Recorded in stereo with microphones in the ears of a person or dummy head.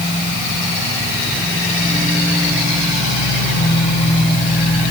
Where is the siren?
No siren in this recording.